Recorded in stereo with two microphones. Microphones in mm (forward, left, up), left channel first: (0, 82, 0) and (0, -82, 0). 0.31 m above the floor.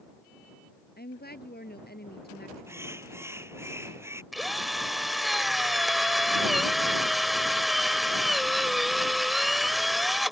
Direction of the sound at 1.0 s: 80° left.